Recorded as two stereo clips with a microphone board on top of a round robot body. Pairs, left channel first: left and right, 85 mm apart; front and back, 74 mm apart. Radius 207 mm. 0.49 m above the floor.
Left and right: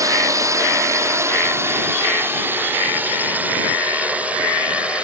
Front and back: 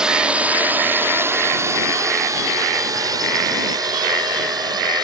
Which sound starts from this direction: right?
A drone, at 0.0 s.